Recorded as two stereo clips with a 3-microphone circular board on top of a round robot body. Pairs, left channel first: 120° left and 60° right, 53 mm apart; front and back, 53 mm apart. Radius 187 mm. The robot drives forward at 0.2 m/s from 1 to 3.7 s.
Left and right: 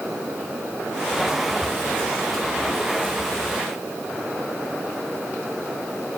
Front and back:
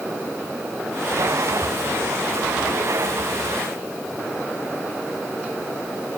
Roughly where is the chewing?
I don't hear chewing.